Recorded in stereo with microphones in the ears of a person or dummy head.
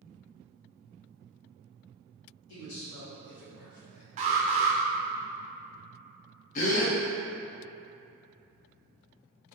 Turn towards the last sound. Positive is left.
turn(degrees=40)  # may be behind; listen again after turning